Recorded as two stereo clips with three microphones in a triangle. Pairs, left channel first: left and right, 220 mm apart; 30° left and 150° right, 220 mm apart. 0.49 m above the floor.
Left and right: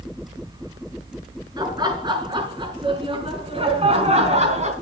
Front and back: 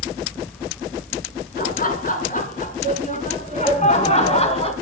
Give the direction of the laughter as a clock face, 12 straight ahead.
1 o'clock.